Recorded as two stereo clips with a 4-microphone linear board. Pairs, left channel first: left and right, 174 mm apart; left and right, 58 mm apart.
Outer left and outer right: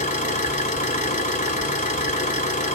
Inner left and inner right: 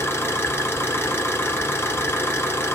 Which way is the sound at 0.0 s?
45° left (ahead or behind).